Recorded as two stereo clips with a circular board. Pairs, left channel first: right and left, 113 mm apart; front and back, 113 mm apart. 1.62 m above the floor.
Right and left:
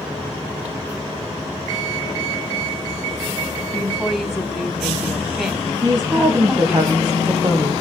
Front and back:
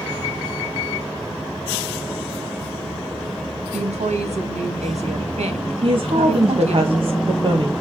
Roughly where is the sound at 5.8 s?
Behind left.